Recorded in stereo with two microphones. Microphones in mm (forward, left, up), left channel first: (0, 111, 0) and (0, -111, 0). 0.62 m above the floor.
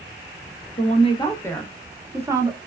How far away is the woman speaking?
About 0.7 m.